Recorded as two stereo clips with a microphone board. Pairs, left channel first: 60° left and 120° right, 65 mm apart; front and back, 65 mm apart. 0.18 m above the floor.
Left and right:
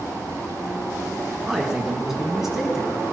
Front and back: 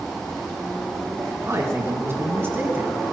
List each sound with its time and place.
1.4 s a man speaking: 160° left, 2.5 m; by 2.9 s 155° left, 1.8 m